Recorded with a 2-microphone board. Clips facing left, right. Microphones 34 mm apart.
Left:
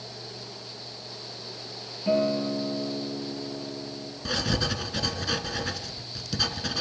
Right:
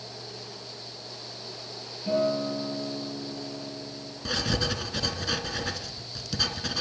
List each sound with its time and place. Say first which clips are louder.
2.1 s a guitar: left 1 dB; 30° left (ahead or behind), 7 m
4.2 s writing: even; centre (ahead or behind), 2 m